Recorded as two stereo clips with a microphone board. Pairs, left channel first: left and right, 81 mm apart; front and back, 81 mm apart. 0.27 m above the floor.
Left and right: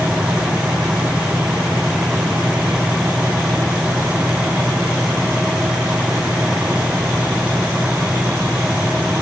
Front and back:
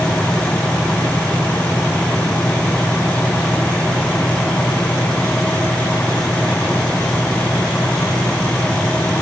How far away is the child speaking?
No child speaking in this recording.